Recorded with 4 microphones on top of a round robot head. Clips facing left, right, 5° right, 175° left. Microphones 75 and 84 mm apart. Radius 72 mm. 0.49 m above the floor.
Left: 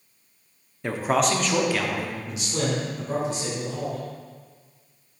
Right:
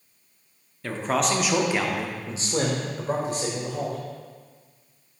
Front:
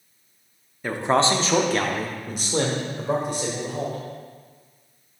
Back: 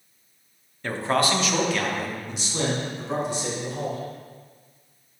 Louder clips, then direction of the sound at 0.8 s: Left 2 dB, front 3 dB; 50° left.